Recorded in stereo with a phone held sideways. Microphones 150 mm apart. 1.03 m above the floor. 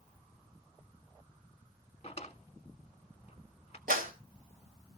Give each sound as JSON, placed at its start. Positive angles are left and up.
{"t": 2.0, "sound": "a drawer", "side_deg": 40, "distance_m": 1.1}
{"t": 3.9, "sound": "a clap", "side_deg": -75, "distance_m": 4.0}